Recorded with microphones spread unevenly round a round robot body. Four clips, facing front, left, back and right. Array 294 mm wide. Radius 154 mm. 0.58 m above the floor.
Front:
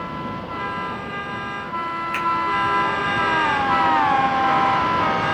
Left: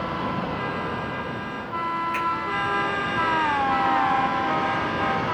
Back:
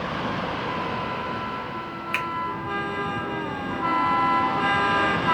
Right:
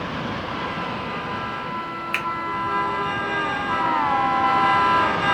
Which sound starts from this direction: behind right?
A finger snap, at 2.1 s.